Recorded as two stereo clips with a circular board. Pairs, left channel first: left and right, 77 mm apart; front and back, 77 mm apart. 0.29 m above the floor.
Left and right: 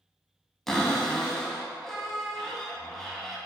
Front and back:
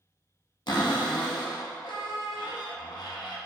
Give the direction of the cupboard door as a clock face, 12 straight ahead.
12 o'clock.